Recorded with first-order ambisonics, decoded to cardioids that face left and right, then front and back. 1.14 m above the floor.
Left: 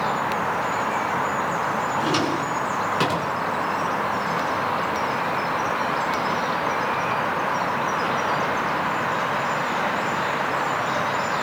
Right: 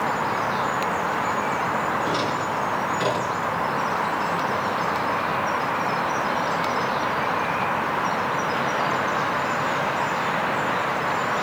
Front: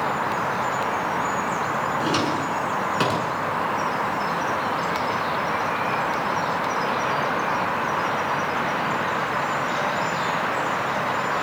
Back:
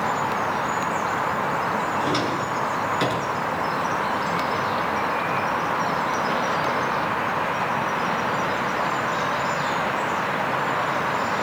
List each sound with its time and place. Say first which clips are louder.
2.0 s a drawer: left 1 dB, even; 40° left, 8 m